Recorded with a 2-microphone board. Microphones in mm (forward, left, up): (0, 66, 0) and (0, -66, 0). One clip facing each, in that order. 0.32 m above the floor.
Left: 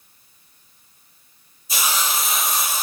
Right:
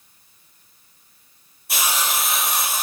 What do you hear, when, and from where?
1.7 s a hiss: 70° right (ahead or behind), 1.5 m